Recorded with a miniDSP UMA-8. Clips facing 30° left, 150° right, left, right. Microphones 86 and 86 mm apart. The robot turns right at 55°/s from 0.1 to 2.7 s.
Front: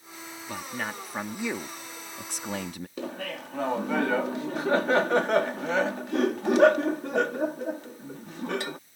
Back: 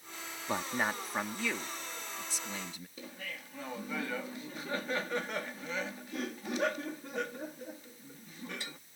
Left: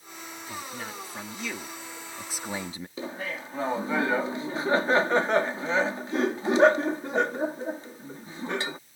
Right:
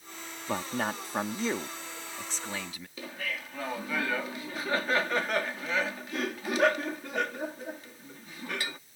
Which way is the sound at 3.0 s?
30° left.